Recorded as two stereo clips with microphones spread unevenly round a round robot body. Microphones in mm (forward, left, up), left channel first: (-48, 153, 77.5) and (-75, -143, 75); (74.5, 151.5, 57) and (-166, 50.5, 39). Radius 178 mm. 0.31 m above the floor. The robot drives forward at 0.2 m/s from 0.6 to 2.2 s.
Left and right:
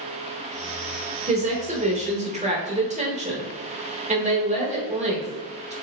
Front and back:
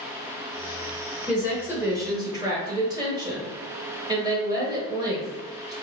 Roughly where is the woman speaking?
Right.